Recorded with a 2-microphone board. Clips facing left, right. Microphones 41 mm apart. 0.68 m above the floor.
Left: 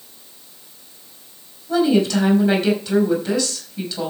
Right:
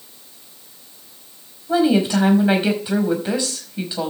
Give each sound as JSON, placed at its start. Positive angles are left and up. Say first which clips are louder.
{"t": 1.7, "sound": "a woman speaking", "louder": "even", "side_deg": -20, "distance_m": 5.0}